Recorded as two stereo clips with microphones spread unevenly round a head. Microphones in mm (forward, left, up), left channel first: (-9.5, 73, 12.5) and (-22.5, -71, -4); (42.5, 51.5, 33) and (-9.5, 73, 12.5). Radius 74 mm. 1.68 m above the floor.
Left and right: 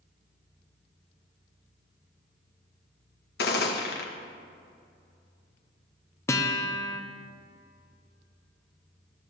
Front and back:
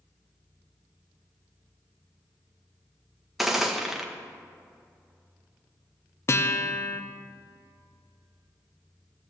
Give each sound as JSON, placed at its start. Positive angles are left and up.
{"t": 3.4, "sound": "a gunshot", "azimuth_deg": 65, "distance_m": 1.7}
{"t": 6.3, "sound": "a guitar", "azimuth_deg": 10, "distance_m": 0.9}